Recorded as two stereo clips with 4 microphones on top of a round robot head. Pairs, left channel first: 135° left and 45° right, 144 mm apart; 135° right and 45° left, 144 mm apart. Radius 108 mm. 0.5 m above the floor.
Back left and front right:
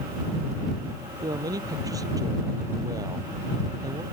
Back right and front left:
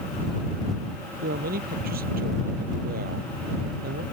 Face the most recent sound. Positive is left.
turn(degrees=20)